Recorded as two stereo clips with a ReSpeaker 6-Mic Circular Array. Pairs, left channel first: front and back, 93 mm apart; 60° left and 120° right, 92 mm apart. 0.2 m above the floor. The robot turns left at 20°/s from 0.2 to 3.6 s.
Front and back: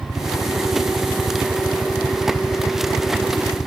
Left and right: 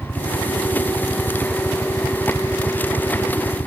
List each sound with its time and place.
0.0 s a helicopter: 135° left; by 3.7 s 70° left